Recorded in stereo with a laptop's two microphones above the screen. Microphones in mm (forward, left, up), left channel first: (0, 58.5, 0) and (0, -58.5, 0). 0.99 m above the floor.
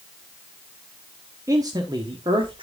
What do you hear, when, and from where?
1.5 s a man speaking: 30° right (ahead or behind), 1.5 m; by 2.6 s 50° right (ahead or behind), 1.9 m